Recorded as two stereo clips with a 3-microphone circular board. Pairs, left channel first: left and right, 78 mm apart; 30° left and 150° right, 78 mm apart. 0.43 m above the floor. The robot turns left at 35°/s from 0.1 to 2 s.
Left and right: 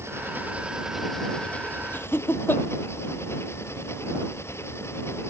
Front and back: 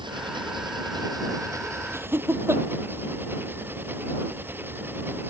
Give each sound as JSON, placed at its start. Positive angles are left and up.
{"t": 0.0, "sound": "an engine running", "azimuth_deg": -145}
{"t": 1.9, "sound": "laughter", "azimuth_deg": 155}